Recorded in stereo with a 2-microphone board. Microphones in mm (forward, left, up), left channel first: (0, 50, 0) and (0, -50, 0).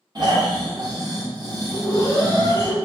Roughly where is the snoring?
Right.